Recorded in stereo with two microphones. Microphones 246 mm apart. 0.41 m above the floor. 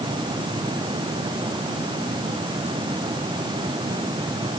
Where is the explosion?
No explosion in this recording.